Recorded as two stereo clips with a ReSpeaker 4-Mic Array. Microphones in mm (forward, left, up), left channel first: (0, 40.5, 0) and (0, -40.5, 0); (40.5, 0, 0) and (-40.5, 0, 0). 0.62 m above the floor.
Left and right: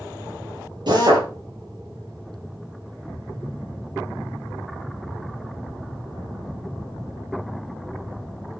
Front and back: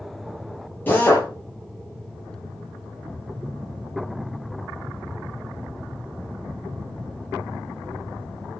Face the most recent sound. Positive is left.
turn(degrees=-65)